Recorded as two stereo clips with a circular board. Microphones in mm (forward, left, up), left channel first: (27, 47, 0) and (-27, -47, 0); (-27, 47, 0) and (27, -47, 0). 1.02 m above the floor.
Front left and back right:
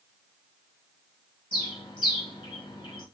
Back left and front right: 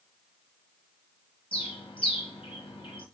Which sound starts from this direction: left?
A bird, at 1.5 s.